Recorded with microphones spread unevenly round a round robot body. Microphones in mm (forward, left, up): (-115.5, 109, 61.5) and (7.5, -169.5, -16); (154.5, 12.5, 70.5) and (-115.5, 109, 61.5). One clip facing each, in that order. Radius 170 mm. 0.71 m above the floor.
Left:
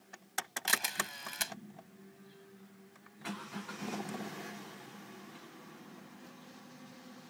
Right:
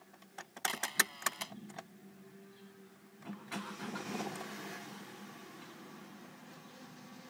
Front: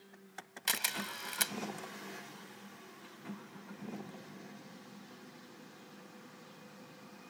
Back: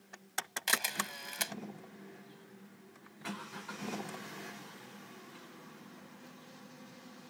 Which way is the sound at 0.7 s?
55° left.